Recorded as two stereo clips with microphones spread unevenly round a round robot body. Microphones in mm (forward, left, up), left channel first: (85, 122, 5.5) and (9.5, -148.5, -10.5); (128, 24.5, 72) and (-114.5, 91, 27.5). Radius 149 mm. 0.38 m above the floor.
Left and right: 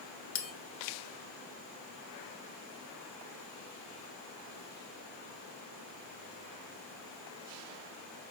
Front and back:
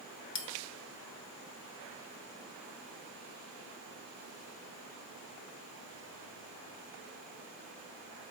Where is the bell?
25° left, 1.0 m.